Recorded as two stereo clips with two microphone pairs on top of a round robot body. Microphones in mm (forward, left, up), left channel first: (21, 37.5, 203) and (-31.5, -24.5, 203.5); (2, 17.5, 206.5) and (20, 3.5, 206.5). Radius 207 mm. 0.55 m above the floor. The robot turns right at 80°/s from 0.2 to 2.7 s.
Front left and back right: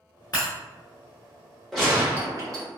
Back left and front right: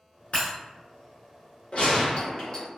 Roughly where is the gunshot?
Behind left.